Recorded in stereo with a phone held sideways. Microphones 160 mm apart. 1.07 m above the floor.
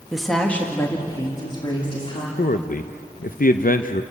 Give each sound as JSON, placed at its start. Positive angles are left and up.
{"t": 0.1, "sound": "a woman speaking", "side_deg": -5, "distance_m": 1.6}
{"t": 2.4, "sound": "a man speaking", "side_deg": 65, "distance_m": 0.6}